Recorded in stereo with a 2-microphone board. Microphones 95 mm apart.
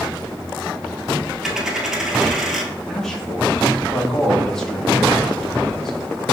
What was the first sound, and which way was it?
A dropped coin, 5° right (ahead or behind).